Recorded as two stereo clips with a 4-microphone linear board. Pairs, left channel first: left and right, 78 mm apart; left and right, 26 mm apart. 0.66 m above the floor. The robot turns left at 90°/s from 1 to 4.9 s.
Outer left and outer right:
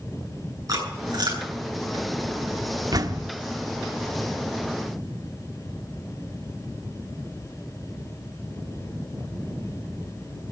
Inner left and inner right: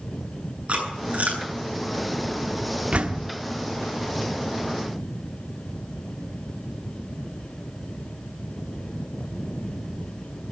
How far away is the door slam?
About 1.2 m.